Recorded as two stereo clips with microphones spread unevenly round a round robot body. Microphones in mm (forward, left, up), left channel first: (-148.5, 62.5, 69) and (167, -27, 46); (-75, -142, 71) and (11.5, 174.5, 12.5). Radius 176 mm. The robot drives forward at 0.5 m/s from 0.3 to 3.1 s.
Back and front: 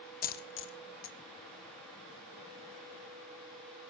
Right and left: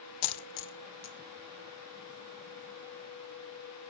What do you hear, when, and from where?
0.2 s a dropped coin: 130° right, 0.5 m; by 1.2 s 155° right, 0.9 m